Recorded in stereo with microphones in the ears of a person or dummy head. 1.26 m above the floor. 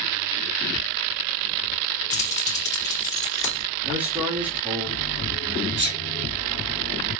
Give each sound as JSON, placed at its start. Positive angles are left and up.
{"t": 2.1, "sound": "keys jangling", "side_deg": 15, "distance_m": 2.5}
{"t": 3.8, "sound": "a man speaking", "side_deg": -5, "distance_m": 2.5}
{"t": 5.8, "sound": "a sneeze", "side_deg": -55, "distance_m": 1.1}